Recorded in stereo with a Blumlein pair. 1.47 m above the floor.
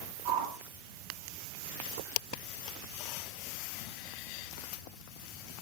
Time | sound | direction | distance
0.2 | a whoosh | 50° right | 4.5 m